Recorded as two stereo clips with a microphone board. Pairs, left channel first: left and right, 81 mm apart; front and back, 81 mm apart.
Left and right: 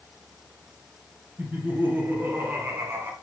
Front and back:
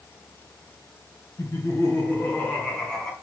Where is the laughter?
30° right, 2 m; by 3.1 s 85° right, 1.7 m.